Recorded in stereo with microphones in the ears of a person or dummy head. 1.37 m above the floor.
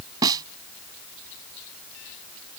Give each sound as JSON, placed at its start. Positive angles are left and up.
{"t": 0.2, "sound": "a snare drum", "side_deg": -25}